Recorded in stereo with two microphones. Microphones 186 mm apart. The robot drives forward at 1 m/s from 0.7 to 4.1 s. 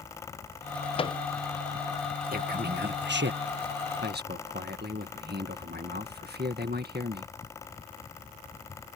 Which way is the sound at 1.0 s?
30° left (ahead or behind).